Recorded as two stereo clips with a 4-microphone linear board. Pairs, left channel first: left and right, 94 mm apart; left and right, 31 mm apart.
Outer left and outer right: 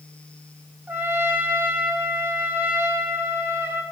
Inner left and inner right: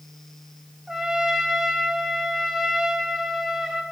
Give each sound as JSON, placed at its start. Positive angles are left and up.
{"t": 0.9, "sound": "a trumpet", "side_deg": -20, "distance_m": 0.7}